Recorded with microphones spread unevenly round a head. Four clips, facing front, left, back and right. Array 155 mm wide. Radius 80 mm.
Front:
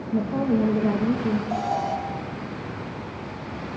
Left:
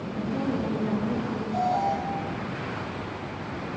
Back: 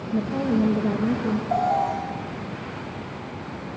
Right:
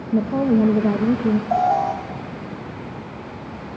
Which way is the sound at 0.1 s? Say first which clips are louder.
Right 11 dB, even; 85° right.